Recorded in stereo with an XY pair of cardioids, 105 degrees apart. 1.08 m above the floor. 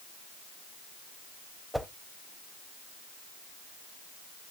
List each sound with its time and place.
1.7 s a whoosh: straight ahead, 0.6 m